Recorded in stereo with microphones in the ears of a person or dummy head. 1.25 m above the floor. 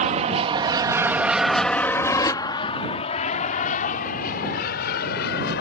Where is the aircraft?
40° right (ahead or behind); by 5.6 s 50° left (ahead or behind).